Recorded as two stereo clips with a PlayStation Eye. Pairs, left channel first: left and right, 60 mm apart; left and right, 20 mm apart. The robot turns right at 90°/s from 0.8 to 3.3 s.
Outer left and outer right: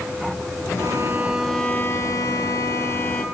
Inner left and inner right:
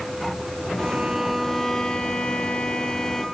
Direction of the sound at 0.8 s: 65° right.